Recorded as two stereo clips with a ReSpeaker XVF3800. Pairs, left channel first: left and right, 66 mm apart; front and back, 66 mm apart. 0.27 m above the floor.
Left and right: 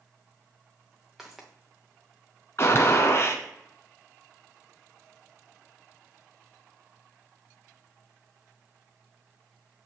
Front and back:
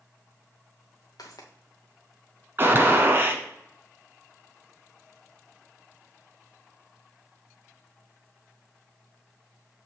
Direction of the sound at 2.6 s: 130° left.